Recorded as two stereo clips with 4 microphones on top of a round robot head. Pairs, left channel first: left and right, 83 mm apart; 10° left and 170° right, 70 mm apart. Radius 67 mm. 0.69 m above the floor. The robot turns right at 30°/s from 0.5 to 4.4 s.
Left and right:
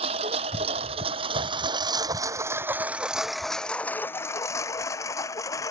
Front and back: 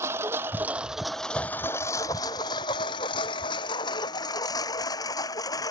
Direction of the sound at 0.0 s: 105° right.